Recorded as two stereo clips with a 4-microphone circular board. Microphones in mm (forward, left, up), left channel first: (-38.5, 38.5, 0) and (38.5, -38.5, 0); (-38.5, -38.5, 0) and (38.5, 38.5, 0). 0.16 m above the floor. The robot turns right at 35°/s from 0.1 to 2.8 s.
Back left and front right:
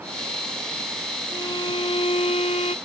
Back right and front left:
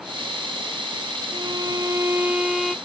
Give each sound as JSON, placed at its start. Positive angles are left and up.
{"t": 1.3, "sound": "a violin", "azimuth_deg": 85}